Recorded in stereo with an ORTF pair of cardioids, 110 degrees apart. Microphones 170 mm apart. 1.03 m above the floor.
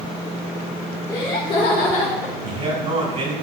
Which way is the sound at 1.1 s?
25° left.